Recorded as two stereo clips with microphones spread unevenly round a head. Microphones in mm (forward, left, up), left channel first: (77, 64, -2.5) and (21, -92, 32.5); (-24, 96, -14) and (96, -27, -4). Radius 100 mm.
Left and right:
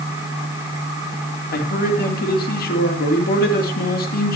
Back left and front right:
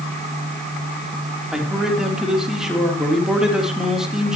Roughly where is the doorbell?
I don't hear a doorbell.